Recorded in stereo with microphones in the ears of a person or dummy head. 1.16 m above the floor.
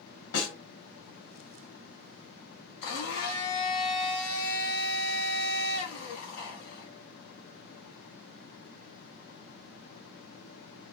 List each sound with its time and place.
0.3 s a snare drum: 75° left (ahead or behind), 1.3 m
2.8 s a blender: 60° left (ahead or behind), 0.9 m